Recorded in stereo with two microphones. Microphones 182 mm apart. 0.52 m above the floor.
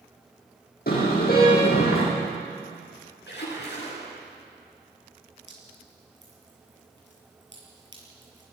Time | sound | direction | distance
0.9 | a car horn | 55° left (ahead or behind) | 9.5 m
3.3 | a splash | 70° left (ahead or behind) | 8 m
5.5 | dripping | 85° right | 6.5 m